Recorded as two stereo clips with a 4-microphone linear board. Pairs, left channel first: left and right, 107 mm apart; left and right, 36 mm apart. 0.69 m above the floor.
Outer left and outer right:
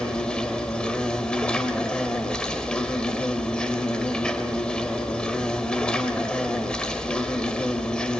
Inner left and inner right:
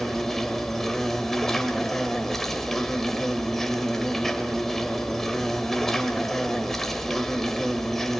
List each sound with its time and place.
0.0 s an insect: 10° left (ahead or behind), 1.9 m